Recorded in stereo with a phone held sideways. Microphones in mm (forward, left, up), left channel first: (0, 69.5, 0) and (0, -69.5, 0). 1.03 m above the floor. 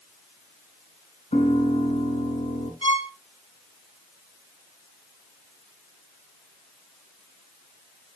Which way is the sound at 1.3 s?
60° left (ahead or behind).